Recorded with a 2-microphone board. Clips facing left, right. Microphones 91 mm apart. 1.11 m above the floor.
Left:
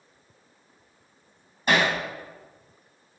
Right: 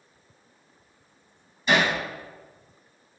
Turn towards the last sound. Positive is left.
turn(degrees=55)  # may be behind; listen again after turning